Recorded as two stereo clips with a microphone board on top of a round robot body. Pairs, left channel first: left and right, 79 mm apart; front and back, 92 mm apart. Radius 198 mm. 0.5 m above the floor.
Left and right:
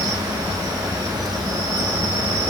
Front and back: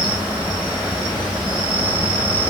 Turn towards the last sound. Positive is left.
turn(degrees=-100)